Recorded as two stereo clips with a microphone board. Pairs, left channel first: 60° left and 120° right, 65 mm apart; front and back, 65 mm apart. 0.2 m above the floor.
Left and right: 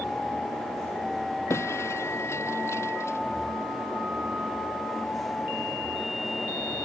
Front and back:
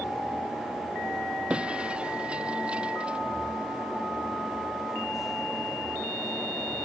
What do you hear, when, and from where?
1.5 s breaking glass: 105° left